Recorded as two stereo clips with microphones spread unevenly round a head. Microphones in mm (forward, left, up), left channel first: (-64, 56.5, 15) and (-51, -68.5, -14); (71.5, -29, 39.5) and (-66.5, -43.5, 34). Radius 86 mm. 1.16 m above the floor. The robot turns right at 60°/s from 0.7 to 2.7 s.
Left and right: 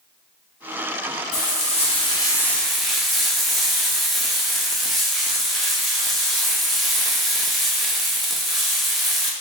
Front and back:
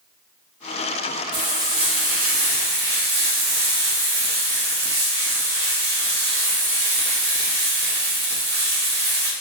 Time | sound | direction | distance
1.3 | frying | 100° left | 0.8 m